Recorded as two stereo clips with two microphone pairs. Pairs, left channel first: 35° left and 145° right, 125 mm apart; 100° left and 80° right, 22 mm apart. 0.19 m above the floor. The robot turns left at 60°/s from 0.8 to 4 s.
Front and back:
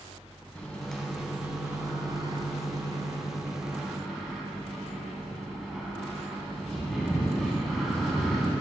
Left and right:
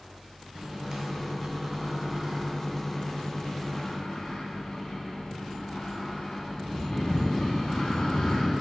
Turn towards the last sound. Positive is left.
turn(degrees=125)